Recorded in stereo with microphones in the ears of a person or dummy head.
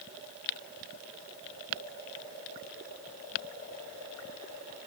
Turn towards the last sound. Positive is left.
No sound to turn to.